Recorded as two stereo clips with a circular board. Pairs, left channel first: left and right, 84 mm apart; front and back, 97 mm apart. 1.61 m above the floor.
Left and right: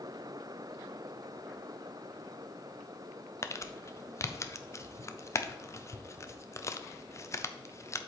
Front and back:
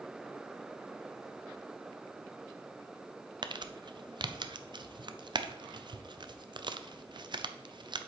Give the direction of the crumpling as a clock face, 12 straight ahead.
7 o'clock.